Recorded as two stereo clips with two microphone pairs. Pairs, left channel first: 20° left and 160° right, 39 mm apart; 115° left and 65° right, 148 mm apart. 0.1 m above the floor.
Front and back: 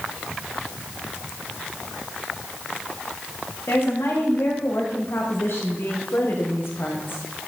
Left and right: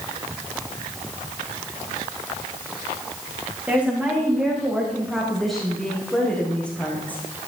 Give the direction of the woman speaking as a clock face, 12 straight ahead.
11 o'clock.